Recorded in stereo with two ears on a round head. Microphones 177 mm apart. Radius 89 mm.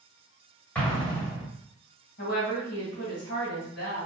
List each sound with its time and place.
0.8 s an explosion: 10° left (ahead or behind), 1.3 m
2.2 s a woman speaking: 60° left (ahead or behind), 2.0 m